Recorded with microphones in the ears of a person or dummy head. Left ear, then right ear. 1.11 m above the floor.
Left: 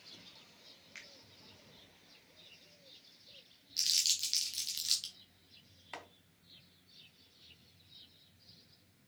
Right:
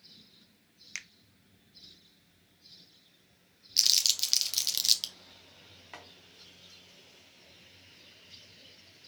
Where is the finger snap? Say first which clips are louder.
Right 10 dB; 80° right, 0.7 m.